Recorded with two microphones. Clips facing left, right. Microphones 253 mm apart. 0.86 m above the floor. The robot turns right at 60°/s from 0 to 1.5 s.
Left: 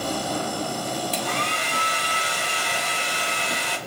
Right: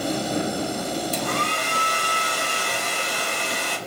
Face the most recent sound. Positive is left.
turn(degrees=-50)  # may be behind; listen again after turning